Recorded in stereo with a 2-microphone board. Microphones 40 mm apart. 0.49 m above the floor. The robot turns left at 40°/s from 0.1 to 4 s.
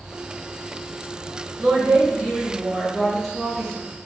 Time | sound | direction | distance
1.6 | a woman speaking | 115° right | 3 m